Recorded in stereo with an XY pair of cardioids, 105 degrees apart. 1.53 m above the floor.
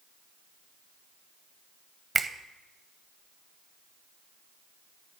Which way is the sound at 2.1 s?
25° right.